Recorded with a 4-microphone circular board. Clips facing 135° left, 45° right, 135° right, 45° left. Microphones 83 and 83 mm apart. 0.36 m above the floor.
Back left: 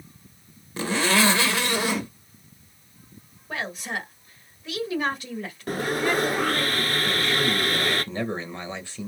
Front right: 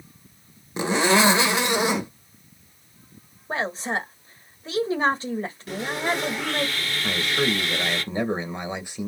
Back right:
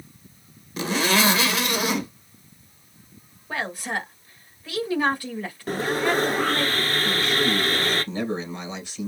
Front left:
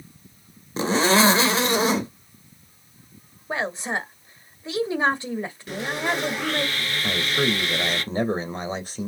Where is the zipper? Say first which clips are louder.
Front right 3 dB, front left 4 dB; 10° left, 1.1 m.